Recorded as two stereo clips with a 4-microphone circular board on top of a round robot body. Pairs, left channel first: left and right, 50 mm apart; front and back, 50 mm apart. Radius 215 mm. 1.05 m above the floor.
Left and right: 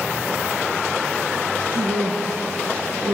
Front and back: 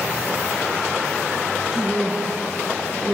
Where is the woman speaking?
105° right, 1.4 m.